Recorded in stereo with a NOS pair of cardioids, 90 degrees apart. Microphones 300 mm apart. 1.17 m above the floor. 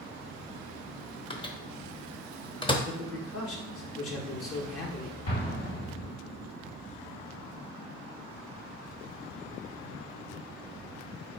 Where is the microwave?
15° left, 0.8 m.